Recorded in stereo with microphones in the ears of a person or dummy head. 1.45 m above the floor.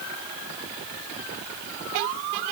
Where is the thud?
No thud in this recording.